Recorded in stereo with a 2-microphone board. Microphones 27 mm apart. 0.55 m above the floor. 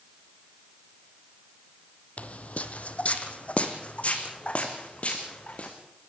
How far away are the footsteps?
About 1.3 m.